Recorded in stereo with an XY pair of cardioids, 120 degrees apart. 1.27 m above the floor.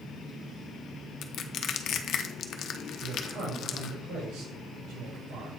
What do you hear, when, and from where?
1.2 s crushing: 55° left, 0.8 m
3.0 s a man speaking: 65° right, 4.5 m